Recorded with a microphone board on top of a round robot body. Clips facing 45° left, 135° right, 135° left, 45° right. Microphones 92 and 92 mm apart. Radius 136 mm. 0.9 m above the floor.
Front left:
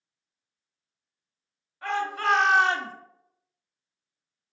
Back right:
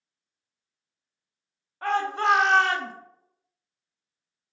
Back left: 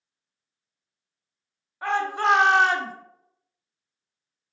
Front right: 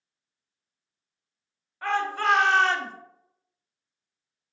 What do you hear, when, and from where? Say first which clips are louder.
1.8 s a shout: back right 3 dB, back left 2 dB; 155° right, 0.7 m; by 2.9 s 60° left, 0.6 m